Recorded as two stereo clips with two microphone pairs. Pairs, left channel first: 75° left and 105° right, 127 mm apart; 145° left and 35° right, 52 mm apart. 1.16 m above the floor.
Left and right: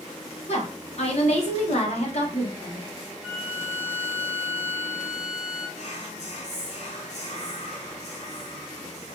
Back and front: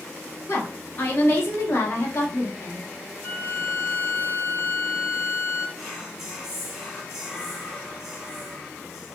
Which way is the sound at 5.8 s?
50° left.